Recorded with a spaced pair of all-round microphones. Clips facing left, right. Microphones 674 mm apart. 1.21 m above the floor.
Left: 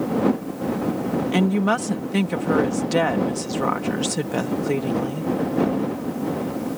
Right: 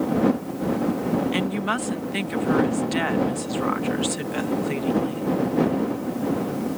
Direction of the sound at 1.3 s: 65° left (ahead or behind).